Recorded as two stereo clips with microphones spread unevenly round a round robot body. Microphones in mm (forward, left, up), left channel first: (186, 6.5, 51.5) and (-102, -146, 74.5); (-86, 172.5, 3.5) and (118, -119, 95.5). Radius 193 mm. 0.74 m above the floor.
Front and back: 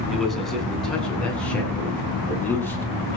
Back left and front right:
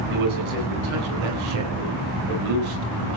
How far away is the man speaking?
About 9 m.